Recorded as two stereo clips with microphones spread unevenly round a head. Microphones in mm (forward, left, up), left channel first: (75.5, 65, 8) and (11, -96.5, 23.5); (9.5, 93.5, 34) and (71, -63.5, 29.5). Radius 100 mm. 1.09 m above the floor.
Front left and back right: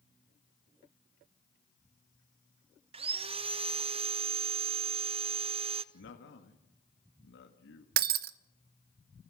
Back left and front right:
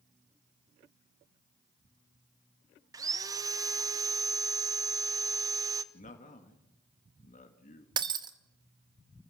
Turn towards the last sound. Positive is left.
turn(degrees=-135)